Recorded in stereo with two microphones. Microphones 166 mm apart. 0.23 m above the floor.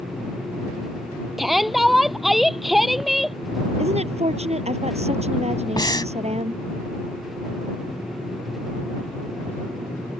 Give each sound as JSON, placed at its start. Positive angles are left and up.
{"t": 1.4, "sound": "a shout", "side_deg": 0}
{"t": 3.8, "sound": "a woman speaking", "side_deg": -40}
{"t": 5.8, "sound": "breathing", "side_deg": 25}